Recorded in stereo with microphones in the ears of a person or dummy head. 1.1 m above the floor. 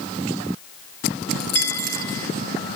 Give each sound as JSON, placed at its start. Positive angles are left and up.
{"t": 1.6, "sound": "a bell", "side_deg": 15, "distance_m": 3.5}